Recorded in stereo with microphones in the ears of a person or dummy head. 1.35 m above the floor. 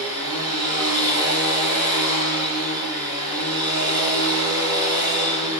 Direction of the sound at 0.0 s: 20° right (ahead or behind).